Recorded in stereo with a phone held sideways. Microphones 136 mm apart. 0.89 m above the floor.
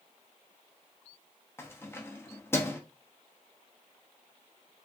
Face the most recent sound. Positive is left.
turn(degrees=20)  # may be behind; listen again after turning